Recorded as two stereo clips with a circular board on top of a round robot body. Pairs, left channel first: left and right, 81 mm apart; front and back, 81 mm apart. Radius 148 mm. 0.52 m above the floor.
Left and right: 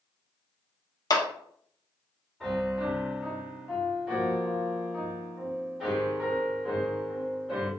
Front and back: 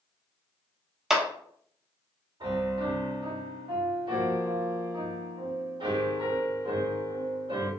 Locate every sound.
1.1 s a clap: 100° left, 1.0 m
2.4 s a piano: 175° left, 2.0 m